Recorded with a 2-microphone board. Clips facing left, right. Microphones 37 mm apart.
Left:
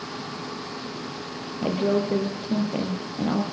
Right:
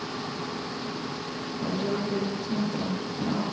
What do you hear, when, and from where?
1.6 s a woman speaking: 55° left (ahead or behind), 4 m